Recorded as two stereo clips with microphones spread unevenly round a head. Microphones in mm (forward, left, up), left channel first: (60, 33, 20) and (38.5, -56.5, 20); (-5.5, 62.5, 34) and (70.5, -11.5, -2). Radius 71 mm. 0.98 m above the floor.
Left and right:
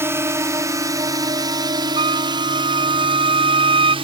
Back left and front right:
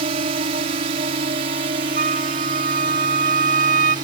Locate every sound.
0.0 s a drone: 45° right; by 4.0 s 90° right
2.0 s a trumpet: 75° right